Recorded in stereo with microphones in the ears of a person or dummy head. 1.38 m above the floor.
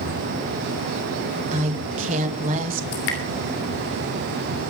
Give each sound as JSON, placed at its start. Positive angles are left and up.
{"t": 1.5, "sound": "a woman speaking", "side_deg": -40, "distance_m": 1.7}
{"t": 2.9, "sound": "dripping", "side_deg": 70, "distance_m": 3.0}